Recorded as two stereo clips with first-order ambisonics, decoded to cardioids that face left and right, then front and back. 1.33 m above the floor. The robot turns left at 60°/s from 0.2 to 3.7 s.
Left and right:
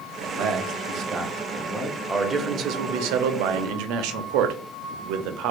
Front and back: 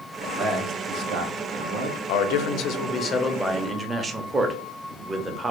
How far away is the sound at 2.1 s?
About 0.6 m.